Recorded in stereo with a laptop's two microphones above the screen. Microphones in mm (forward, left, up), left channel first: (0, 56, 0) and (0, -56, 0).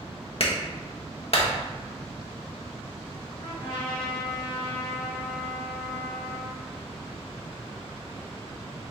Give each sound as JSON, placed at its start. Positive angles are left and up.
{"t": 0.4, "sound": "a clap", "side_deg": 60, "distance_m": 0.8}
{"t": 3.4, "sound": "a trumpet", "side_deg": 50, "distance_m": 1.5}